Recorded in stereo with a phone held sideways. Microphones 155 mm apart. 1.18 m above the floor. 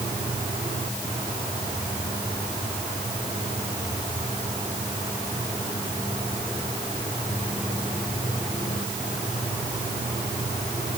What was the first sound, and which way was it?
Only background noise.